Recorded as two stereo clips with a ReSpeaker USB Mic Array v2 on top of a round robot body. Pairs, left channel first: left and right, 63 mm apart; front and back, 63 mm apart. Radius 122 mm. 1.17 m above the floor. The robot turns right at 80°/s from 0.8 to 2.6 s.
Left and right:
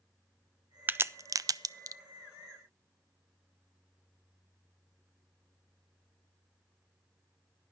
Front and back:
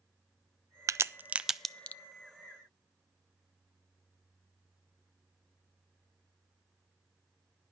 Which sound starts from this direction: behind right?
A crack, at 0.9 s.